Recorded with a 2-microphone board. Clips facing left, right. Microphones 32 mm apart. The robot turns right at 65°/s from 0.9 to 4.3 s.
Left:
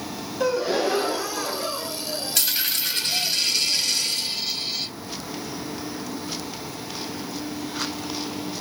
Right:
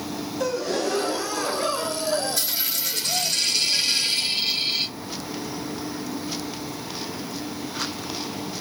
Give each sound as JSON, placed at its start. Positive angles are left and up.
{"t": 0.4, "sound": "a gasp", "azimuth_deg": 160, "distance_m": 0.6}
{"t": 2.4, "sound": "a dropped coin", "azimuth_deg": 100, "distance_m": 1.8}